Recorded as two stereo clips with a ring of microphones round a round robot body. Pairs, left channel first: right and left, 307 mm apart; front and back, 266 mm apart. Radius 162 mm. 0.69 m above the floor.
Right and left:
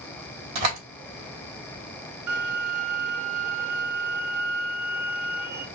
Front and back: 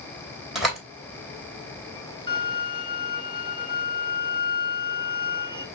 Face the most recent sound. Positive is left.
turn(degrees=70)